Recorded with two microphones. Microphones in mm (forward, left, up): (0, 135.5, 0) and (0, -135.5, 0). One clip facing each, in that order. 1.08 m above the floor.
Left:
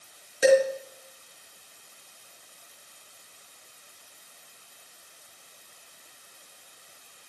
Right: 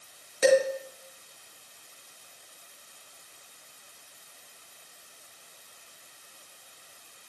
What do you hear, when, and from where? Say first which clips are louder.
0.4 s dishes clattering: left 2 dB; 5° left (ahead or behind), 4 m